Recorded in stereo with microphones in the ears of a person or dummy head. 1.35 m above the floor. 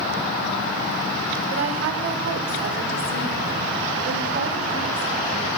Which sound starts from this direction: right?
A woman speaking, at 1.5 s.